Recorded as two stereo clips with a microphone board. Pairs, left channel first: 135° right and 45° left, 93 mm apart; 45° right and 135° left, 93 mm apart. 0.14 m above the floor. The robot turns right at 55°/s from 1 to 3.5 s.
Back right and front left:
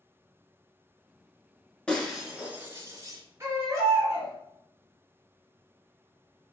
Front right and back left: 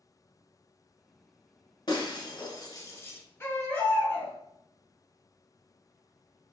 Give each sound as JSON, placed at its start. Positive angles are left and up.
{"t": 1.9, "sound": "breaking glass", "azimuth_deg": -60, "distance_m": 0.9}
{"t": 3.4, "sound": "a baby crying", "azimuth_deg": 0, "distance_m": 1.3}